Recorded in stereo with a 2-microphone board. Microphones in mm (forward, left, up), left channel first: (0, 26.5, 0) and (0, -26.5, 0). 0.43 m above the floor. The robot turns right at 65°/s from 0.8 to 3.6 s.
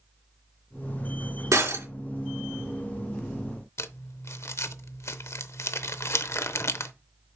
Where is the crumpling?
60° left (ahead or behind), 0.6 m.